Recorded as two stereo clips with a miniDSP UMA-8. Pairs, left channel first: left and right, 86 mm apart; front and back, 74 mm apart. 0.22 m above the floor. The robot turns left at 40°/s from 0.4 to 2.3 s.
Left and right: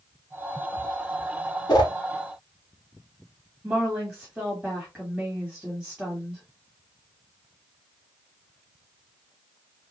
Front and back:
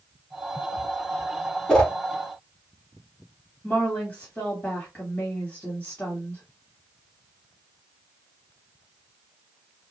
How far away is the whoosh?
About 1.0 m.